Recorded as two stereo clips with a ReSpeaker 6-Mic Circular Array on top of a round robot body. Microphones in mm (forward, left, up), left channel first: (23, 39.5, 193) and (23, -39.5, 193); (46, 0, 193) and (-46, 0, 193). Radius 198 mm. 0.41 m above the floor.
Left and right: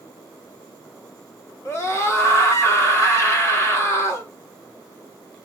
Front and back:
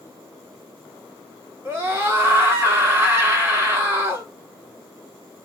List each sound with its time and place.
1.6 s a scream: 130° left, 1.8 m